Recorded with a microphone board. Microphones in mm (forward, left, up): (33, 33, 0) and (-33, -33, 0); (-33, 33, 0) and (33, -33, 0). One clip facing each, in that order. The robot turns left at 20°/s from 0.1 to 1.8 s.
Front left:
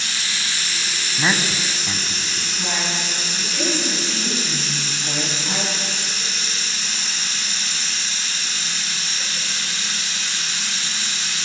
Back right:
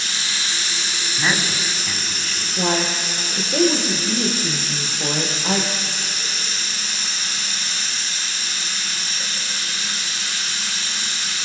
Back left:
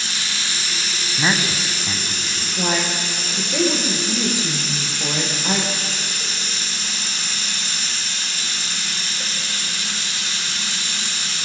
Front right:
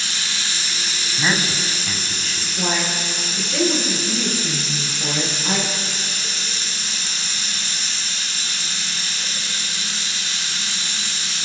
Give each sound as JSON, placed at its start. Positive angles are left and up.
{"t": 0.0, "sound": "running water", "azimuth_deg": 175, "distance_m": 6.5}
{"t": 1.2, "sound": "a man speaking", "azimuth_deg": 95, "distance_m": 1.2}
{"t": 2.6, "sound": "a woman speaking", "azimuth_deg": -150, "distance_m": 4.5}